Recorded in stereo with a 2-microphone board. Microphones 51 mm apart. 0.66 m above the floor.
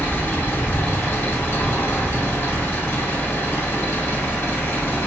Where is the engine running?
50° left (ahead or behind), 0.9 m.